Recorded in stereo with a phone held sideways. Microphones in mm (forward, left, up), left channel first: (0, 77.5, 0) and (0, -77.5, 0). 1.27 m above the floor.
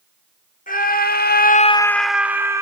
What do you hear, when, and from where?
0.7 s a scream: 65° left (ahead or behind), 1.4 m; by 2.6 s 20° right (ahead or behind), 1.5 m